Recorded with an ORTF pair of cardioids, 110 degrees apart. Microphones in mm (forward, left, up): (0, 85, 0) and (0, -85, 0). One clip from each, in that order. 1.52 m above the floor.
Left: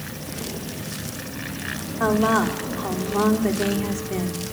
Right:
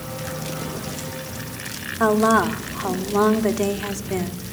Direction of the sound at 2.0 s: 20° right.